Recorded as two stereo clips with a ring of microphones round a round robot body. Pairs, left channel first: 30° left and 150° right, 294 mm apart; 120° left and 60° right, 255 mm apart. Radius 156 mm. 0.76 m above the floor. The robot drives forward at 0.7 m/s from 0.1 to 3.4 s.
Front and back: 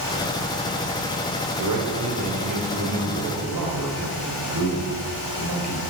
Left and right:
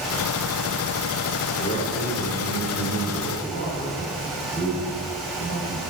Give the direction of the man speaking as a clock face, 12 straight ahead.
6 o'clock.